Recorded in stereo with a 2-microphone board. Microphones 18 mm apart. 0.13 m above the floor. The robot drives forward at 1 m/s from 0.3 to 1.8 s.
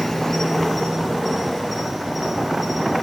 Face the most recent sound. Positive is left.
turn(degrees=10)  # may be behind; listen again after turning